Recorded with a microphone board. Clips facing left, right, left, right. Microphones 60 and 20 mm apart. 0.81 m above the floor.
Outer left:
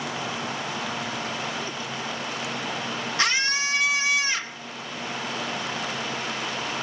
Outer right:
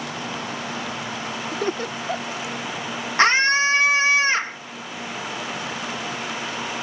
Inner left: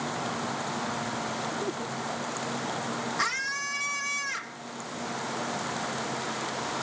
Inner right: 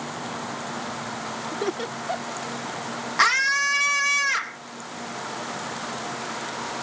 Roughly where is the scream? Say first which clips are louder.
Outer right 9 dB, inner right 12 dB; right.